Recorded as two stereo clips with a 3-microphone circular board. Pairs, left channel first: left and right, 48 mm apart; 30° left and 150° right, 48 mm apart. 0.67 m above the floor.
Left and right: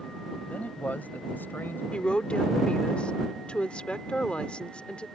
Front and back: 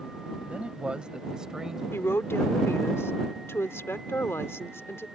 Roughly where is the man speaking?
Behind left.